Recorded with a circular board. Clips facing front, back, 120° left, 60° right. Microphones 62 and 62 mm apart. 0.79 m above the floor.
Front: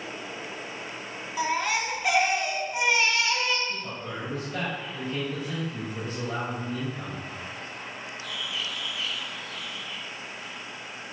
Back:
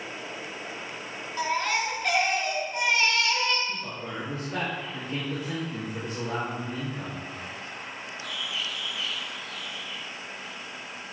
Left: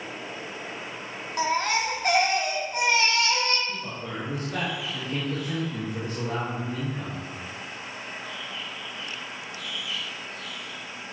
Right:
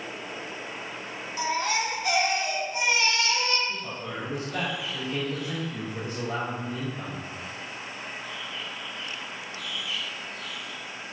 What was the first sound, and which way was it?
A baby crying, 80° left.